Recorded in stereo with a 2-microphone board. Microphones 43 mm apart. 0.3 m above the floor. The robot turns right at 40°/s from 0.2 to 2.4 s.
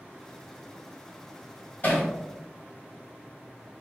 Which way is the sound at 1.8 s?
35° left (ahead or behind).